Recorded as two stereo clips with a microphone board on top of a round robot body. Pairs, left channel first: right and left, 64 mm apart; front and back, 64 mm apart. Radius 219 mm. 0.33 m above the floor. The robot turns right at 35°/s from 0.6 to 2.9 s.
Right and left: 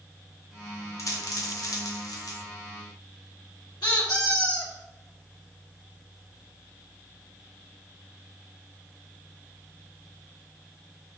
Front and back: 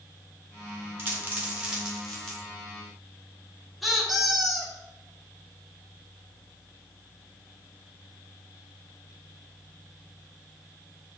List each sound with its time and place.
1.0 s a dropped coin: 125° right, 1.0 m; by 2.4 s 80° right, 1.0 m
3.8 s a squeak: 90° right, 1.6 m